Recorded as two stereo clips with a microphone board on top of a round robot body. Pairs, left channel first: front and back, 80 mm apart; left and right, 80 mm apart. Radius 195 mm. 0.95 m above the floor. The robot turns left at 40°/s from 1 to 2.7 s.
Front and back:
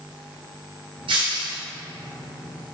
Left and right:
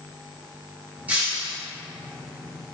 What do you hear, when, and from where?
1.1 s breaking glass: 160° right, 0.9 m; by 1.6 s straight behind, 0.9 m